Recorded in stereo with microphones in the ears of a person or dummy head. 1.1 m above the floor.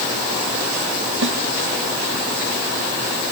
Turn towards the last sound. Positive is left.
turn(degrees=-75)  # may be behind; listen again after turning